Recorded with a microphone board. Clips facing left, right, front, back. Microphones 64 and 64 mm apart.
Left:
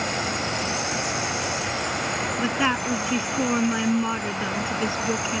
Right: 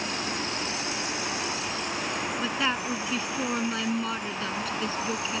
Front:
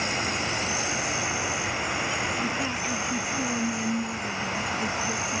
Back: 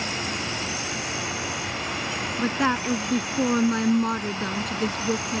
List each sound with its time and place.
0.0 s an insect: 70° left
2.4 s a woman speaking: 160° left